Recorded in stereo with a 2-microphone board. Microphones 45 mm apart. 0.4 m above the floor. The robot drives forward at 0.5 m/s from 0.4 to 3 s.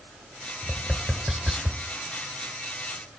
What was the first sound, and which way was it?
Tapping, 5° right (ahead or behind).